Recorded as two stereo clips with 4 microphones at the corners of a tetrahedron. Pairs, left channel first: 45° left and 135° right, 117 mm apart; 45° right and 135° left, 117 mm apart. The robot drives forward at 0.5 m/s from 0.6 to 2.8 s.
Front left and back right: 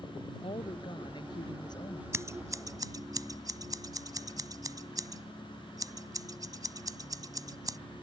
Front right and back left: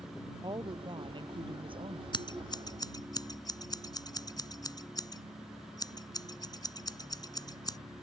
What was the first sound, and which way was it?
A woman speaking, 85° left.